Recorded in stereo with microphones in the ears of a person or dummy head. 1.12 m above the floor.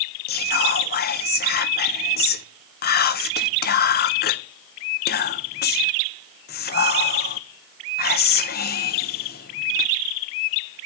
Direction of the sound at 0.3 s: 50° left (ahead or behind).